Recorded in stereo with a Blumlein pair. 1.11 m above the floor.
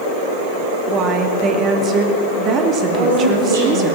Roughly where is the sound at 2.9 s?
Ahead right.